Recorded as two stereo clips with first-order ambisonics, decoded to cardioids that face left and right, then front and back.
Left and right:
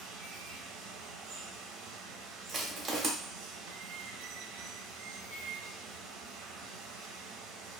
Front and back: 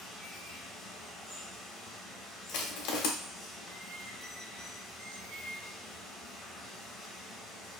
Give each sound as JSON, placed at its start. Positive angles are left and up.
{"t": 0.0, "sound": "running water", "azimuth_deg": -80, "distance_m": 0.7}
{"t": 2.5, "sound": "crushing", "azimuth_deg": -25, "distance_m": 0.6}